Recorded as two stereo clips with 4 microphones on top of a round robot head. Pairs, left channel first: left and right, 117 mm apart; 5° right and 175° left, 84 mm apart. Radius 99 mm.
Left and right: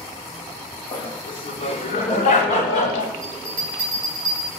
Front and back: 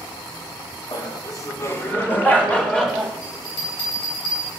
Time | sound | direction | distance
0.9 | laughter | 25° left | 2.5 m
3.2 | a bell | 10° right | 4.5 m